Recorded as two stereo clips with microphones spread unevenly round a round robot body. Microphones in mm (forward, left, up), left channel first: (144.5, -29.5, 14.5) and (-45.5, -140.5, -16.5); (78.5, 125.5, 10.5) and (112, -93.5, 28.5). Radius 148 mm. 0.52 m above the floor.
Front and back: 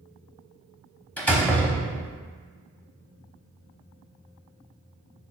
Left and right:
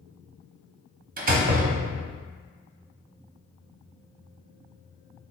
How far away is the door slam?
About 0.8 m.